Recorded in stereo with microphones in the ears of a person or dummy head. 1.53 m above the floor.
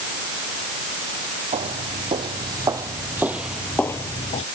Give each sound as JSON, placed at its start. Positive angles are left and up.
{"t": 1.5, "sound": "footsteps", "side_deg": -30}